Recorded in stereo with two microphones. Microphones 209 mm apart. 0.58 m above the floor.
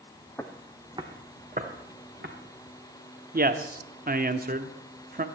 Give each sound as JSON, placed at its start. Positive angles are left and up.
{"t": 0.4, "sound": "footsteps", "side_deg": 10, "distance_m": 1.4}
{"t": 3.3, "sound": "a man speaking", "side_deg": -45, "distance_m": 1.0}